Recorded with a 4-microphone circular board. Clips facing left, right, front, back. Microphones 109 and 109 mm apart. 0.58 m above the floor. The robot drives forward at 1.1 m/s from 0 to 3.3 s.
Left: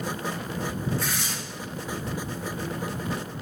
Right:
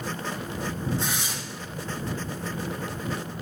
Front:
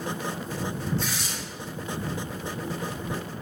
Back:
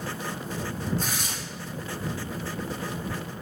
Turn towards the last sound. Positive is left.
turn(degrees=-170)